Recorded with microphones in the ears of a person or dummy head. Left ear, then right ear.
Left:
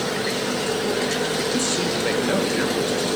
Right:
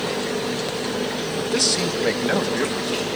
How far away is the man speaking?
About 0.8 m.